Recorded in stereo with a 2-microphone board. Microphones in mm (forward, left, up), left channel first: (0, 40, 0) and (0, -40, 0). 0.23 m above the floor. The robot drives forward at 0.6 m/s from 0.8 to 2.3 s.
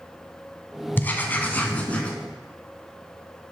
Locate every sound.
1.0 s writing: 25° left (ahead or behind), 1.1 m; by 2.1 s 15° left (ahead or behind), 1.6 m